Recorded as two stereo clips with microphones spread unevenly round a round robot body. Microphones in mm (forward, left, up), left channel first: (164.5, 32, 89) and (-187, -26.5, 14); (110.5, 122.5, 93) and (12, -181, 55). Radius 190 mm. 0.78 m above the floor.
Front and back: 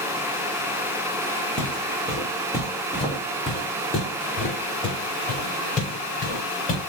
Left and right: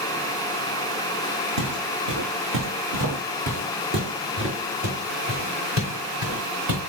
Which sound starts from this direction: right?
Footsteps, at 1.6 s.